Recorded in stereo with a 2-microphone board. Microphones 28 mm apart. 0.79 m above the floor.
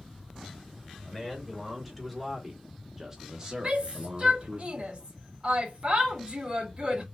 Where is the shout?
35° right (ahead or behind), 3 m.